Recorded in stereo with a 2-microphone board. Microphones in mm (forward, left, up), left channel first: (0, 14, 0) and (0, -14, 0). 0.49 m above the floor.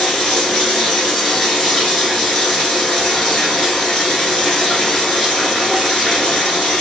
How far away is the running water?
About 1.2 m.